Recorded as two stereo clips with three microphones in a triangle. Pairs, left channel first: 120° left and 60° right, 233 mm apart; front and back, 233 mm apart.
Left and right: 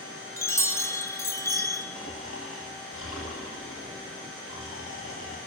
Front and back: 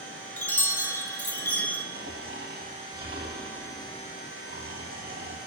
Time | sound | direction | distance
0.4 | a chime | 65° left | 0.5 m
1.9 | snoring | 135° left | 1.0 m